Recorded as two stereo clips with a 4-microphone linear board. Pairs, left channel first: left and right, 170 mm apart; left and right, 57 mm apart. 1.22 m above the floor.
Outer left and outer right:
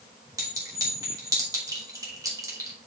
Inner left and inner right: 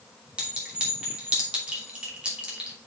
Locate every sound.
0.4 s a clink: 20° right (ahead or behind), 2.5 m